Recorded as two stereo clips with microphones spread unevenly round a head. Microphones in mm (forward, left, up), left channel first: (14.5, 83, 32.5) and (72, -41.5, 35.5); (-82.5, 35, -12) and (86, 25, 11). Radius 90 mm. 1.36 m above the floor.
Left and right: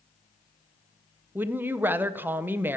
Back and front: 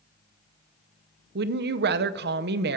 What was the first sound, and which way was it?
A woman speaking, 10° left.